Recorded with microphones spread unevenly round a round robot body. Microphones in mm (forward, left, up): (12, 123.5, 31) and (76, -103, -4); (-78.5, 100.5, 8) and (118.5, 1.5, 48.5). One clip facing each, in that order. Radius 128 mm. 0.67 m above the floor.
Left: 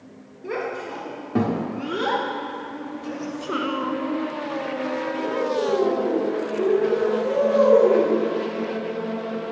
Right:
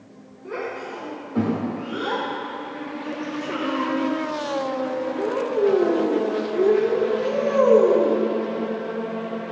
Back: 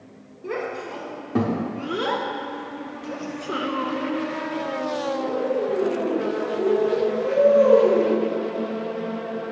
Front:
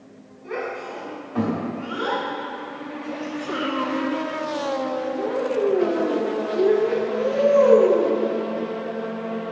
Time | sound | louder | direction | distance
0.4 | a child speaking | left 2 dB, back 1 dB | 135° left | 1.9 m